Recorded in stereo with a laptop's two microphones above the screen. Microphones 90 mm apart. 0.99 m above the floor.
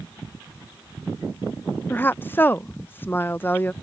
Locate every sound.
1.9 s a woman speaking: 20° left (ahead or behind)